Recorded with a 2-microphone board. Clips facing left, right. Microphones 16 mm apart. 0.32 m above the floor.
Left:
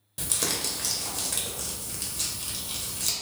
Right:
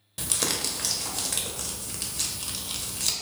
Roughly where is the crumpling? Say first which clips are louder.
Right 1 dB; centre.